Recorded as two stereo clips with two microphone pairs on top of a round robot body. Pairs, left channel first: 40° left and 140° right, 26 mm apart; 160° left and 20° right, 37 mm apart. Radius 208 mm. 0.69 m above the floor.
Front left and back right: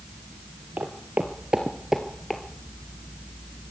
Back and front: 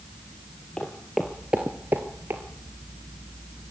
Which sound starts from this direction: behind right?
Footsteps, at 0.8 s.